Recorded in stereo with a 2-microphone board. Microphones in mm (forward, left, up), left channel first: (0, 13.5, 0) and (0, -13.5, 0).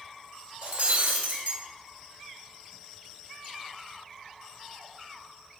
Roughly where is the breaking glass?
Right.